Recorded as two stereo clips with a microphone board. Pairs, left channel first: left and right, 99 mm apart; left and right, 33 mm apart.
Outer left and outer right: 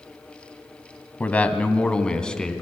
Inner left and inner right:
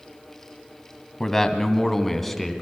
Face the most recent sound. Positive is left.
turn(degrees=5)  # may be behind; listen again after turning